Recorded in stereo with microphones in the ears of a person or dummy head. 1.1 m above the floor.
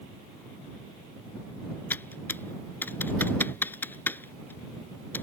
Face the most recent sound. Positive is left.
turn(degrees=10)  # may be behind; listen again after turning